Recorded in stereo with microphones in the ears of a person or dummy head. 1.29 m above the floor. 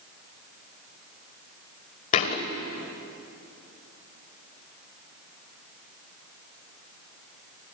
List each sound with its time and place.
2.1 s a thud: 45° left (ahead or behind), 2.0 m